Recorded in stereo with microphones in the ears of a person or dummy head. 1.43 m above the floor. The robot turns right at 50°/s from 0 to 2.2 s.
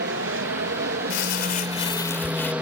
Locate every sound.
0.0 s an aircraft: 115° right; by 2.6 s 5° right
1.1 s crumpling: 115° left; by 2.5 s 170° left